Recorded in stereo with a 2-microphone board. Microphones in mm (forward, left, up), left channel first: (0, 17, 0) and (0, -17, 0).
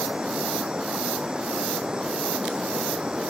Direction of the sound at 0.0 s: 20° right (ahead or behind).